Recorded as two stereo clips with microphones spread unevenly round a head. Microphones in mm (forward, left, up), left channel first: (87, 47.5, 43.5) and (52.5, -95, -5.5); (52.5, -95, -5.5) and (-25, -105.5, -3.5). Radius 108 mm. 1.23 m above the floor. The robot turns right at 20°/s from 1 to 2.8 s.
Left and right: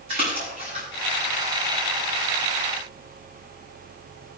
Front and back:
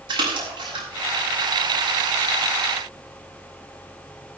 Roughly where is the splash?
Behind.